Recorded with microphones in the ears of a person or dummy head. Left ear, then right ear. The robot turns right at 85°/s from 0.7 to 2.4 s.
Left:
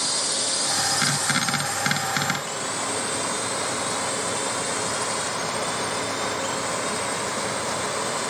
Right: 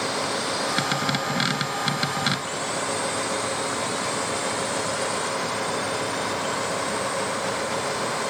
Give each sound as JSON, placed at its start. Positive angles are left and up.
{"t": 0.0, "sound": "a drone", "side_deg": 30}